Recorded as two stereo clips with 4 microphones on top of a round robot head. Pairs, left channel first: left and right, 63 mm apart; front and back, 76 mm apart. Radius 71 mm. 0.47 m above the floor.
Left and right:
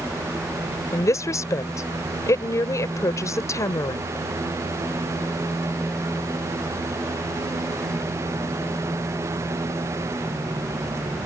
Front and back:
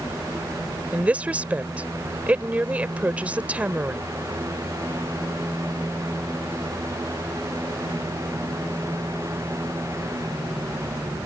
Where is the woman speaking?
110° left.